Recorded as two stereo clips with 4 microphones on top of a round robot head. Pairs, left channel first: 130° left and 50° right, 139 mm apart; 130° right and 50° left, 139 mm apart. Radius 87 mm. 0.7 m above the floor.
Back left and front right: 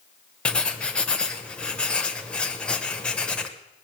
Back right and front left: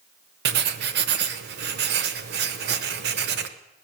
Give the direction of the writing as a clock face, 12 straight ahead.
10 o'clock.